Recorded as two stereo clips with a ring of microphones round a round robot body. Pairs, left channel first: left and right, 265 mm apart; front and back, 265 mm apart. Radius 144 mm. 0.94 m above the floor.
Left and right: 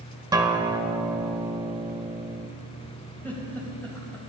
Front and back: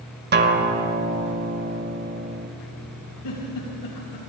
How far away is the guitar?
About 0.8 m.